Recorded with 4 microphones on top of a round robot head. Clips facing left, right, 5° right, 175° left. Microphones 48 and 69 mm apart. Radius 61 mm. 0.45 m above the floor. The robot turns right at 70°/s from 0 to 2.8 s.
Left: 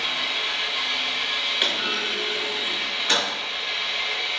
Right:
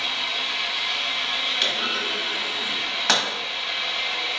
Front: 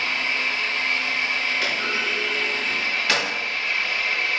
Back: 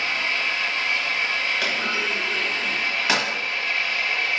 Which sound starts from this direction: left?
An engine running, at 0.0 s.